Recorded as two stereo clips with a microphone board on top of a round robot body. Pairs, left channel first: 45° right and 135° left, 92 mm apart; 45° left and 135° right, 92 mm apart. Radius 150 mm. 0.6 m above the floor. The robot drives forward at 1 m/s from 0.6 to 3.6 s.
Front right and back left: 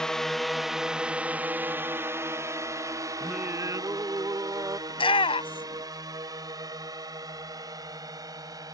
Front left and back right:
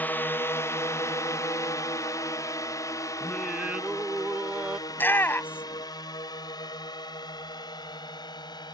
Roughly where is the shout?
Ahead right.